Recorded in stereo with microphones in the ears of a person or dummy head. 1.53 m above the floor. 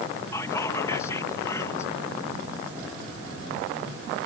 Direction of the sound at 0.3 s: 15° left (ahead or behind).